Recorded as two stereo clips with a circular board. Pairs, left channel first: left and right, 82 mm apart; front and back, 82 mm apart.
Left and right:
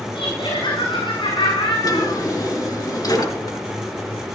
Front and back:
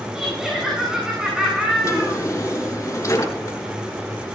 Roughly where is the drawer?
Ahead left.